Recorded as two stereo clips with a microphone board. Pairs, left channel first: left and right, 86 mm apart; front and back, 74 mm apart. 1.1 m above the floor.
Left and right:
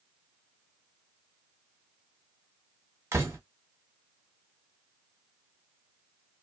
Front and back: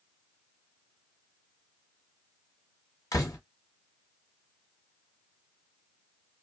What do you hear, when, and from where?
3.1 s a door slam: 35° right, 0.9 m